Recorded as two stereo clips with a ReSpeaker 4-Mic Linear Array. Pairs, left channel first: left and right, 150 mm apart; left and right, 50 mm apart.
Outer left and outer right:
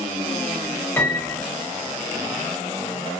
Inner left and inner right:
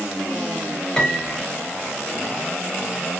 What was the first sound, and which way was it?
A piano, 15° left (ahead or behind).